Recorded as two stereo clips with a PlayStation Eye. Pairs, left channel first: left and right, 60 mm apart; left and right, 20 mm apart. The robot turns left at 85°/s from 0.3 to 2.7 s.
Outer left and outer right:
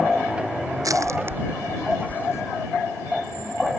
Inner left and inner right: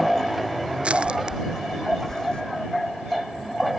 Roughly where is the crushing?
Right.